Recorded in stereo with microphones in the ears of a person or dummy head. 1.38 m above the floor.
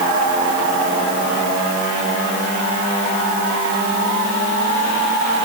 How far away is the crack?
I don't hear a crack.